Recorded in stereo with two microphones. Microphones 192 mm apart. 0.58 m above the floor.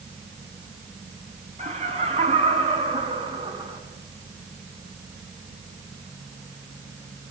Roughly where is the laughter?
Right.